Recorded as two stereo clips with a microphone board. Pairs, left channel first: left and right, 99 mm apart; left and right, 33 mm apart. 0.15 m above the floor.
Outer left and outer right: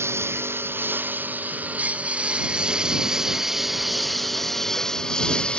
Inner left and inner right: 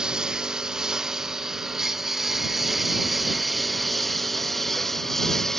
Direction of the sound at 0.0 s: 25° right (ahead or behind).